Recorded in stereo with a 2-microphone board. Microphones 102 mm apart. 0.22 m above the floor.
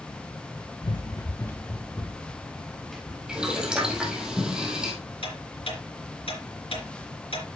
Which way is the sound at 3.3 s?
10° right (ahead or behind).